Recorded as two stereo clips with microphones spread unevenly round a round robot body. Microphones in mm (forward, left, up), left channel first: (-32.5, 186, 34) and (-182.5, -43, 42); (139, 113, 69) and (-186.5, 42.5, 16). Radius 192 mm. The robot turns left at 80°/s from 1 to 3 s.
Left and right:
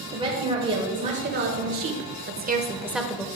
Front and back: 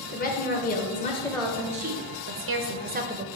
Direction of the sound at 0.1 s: 55° right.